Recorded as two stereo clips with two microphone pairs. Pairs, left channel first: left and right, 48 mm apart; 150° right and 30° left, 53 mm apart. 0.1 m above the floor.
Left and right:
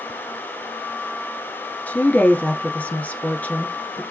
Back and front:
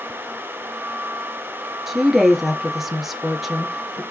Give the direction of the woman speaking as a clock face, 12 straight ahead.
8 o'clock.